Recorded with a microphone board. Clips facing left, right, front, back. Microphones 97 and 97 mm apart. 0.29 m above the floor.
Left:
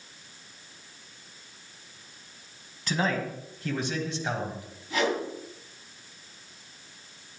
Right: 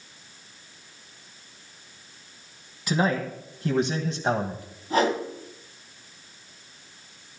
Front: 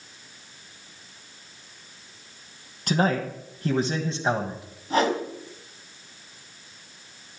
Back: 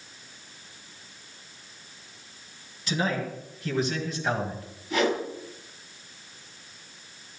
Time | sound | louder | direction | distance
2.9 | a man speaking | right 4 dB, front 5 dB | 10° right | 1.9 m
4.9 | a whoosh | right 4 dB, front 2 dB | 45° right | 2 m